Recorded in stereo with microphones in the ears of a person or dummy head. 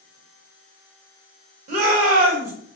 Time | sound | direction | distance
1.7 | a shout | 45° right (ahead or behind) | 0.9 m